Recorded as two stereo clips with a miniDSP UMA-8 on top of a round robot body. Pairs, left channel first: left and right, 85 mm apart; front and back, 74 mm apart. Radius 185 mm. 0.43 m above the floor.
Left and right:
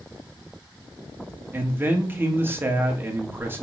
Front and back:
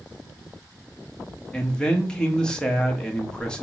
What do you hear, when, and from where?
1.5 s a man speaking: 65° right, 1.1 m